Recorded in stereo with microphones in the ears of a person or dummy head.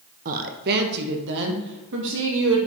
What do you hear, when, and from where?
0.2 s a woman speaking: 45° right (ahead or behind), 0.8 m; by 2.6 s 70° right (ahead or behind), 2.5 m